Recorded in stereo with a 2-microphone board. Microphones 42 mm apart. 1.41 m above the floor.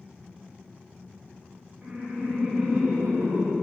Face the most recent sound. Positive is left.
turn(degrees=-40)  # may be behind; listen again after turning